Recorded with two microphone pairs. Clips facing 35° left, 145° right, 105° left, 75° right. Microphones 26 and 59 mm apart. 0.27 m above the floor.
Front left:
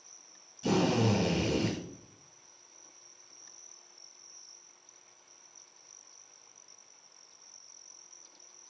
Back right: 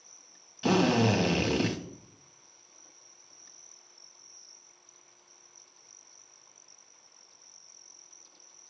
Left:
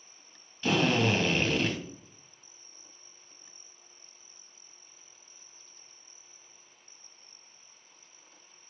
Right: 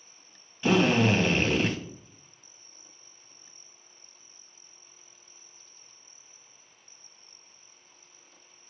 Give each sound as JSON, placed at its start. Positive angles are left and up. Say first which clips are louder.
{"t": 0.6, "sound": "a drill", "louder": "back right 3 dB, right 4 dB", "azimuth_deg": -150, "distance_m": 2.0}